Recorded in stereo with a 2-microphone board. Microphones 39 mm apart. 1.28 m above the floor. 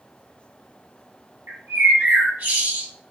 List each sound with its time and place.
1.5 s a bird: 75° right (ahead or behind), 2.0 m